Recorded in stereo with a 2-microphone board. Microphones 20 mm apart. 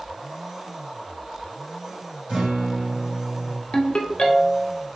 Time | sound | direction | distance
2.3 | a guitar | 85° right | 1.8 m
3.7 | a ringtone | 55° left (ahead or behind) | 0.7 m